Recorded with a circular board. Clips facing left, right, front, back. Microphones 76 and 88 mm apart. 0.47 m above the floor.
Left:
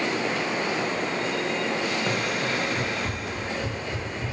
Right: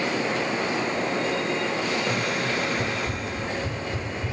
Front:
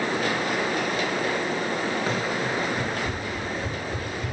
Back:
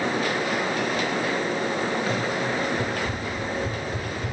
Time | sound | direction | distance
2.1 | running footsteps | 70° left | 3.5 m